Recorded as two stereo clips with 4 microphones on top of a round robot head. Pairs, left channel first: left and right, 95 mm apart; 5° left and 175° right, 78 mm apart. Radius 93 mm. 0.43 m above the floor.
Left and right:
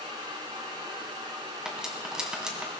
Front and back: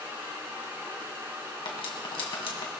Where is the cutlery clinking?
10° right, 2.5 m.